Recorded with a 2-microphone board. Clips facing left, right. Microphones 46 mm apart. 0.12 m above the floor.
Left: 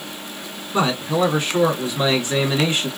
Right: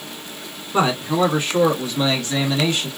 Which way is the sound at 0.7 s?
15° right (ahead or behind).